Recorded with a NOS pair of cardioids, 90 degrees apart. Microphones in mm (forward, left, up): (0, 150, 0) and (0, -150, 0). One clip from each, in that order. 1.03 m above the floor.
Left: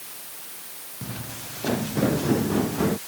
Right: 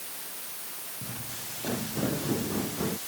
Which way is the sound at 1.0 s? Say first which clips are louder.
Left 5 dB; 50° left.